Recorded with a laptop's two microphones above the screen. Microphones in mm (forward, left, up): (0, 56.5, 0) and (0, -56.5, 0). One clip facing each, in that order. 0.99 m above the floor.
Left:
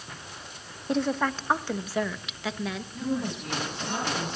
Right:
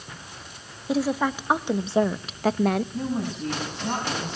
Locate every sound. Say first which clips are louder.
0.9 s a woman speaking: right 2 dB; 5° right (ahead or behind), 1.2 m; by 2.8 s 55° right (ahead or behind), 0.8 m
2.9 s a woman speaking: right 2 dB; 35° right (ahead or behind), 6.5 m